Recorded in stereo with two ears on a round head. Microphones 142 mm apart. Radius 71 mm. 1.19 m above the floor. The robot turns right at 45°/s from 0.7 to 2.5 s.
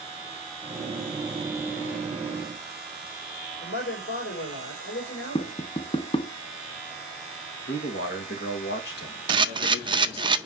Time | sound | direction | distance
3.6 | a man speaking | 70° left (ahead or behind) | 4 m
5.3 | tapping | 35° left (ahead or behind) | 0.6 m
7.7 | a man speaking | 70° left (ahead or behind) | 1.9 m
9.3 | a camera shutter | 30° right (ahead or behind) | 0.5 m